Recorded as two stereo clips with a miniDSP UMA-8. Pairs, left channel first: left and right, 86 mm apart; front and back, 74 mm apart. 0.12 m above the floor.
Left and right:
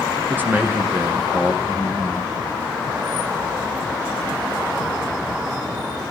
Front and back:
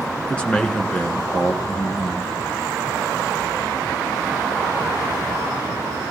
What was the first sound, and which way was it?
A man speaking, 60° right.